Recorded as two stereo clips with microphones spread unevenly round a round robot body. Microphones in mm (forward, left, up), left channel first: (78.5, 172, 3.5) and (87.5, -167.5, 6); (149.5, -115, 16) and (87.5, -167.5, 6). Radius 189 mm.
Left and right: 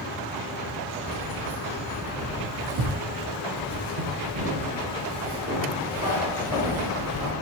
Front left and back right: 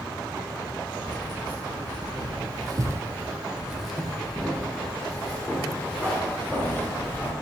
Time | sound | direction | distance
1.0 | keys jangling | 170° right | 0.9 m